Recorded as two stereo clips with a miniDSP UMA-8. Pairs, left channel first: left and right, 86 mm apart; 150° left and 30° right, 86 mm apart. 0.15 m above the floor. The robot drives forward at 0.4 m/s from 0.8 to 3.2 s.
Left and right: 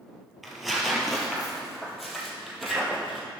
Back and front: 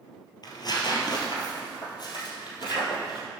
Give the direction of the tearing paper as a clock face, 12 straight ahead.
6 o'clock.